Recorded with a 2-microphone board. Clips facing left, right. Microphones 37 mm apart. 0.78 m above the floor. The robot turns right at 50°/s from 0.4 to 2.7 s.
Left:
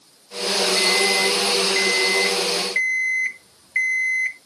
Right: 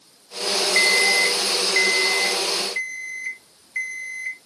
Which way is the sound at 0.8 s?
65° right.